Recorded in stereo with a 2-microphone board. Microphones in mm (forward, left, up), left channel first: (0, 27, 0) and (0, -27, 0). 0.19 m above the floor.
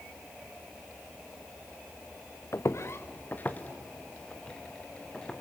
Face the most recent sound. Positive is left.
turn(degrees=15)  # may be behind; listen again after turning